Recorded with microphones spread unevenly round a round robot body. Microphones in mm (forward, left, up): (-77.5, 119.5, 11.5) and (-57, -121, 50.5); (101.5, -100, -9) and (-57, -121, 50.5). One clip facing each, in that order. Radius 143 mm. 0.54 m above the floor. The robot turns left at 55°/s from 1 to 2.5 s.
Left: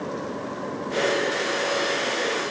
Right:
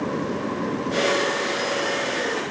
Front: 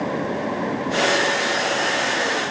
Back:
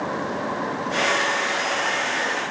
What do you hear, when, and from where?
Only background noise.